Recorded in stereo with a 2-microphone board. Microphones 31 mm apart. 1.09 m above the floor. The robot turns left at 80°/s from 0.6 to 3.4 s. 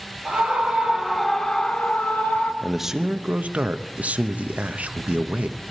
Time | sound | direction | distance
0.2 | a scream | 125° right | 4.5 m
2.6 | a man speaking | 5° left | 0.8 m